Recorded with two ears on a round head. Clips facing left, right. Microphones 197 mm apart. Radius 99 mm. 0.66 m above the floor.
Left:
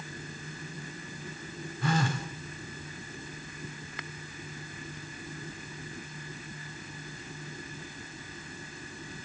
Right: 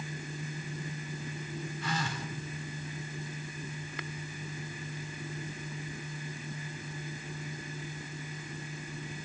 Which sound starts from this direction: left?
A phone buzzing, at 1.8 s.